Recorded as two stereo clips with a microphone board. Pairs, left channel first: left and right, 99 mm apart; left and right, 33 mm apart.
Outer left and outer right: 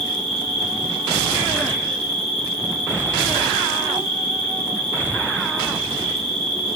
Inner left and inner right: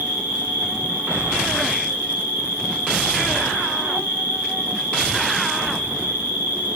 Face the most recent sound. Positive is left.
turn(degrees=-70)  # may be behind; listen again after turning